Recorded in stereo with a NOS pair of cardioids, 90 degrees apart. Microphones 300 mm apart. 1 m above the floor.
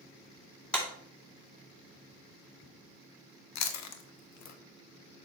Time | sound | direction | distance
0.7 | a clap | 5° left | 2.5 m
3.5 | chewing | 65° left | 0.9 m